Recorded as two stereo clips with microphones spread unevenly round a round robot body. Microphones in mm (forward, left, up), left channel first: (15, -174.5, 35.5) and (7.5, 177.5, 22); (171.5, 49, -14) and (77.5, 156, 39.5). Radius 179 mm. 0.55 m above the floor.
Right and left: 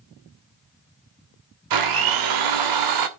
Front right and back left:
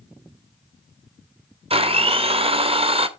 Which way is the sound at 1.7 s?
75° left.